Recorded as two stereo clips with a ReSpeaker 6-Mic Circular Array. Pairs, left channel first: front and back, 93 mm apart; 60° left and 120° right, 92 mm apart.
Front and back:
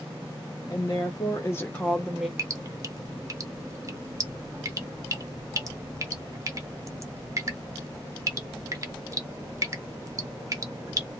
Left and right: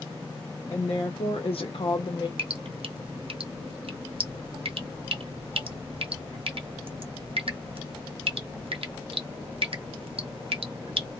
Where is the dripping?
125° right, 0.6 m.